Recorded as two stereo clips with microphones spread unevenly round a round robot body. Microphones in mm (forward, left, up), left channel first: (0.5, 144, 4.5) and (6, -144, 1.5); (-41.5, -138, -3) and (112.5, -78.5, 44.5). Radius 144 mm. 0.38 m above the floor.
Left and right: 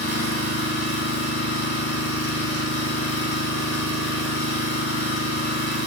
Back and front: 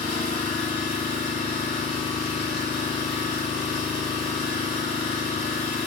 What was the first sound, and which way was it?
An engine running, 145° left.